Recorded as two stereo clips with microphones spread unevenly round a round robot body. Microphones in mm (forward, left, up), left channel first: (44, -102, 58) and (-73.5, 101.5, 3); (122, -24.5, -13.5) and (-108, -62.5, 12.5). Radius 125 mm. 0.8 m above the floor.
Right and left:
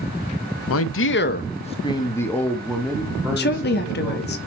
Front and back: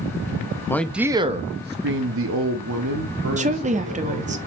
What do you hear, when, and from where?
0.7 s a man speaking: 60° right, 0.7 m; by 4.4 s 165° right, 2.5 m
3.4 s a woman speaking: 110° right, 1.2 m